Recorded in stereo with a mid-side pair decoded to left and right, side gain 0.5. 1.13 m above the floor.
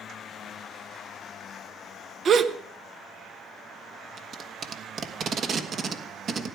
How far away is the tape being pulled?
About 1.5 m.